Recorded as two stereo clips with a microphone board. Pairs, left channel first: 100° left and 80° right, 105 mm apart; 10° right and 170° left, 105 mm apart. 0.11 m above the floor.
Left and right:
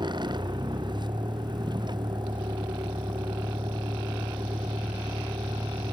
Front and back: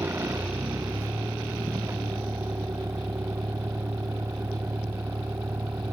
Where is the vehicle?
125° right.